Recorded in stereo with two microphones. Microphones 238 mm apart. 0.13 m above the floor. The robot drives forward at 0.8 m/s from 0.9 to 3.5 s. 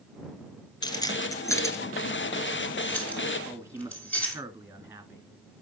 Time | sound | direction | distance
0.8 | keys jangling | 15° left (ahead or behind) | 0.9 m
3.5 | a man speaking | 10° right (ahead or behind) | 1.8 m